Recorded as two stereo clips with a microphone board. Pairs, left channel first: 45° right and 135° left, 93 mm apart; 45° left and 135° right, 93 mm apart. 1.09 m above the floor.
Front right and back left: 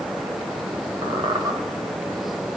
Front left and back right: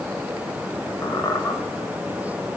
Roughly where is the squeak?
Left.